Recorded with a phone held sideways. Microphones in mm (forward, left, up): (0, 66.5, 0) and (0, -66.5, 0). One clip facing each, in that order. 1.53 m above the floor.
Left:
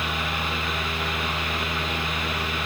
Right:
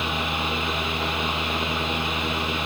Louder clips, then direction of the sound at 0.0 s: Right 2 dB; 20° right (ahead or behind).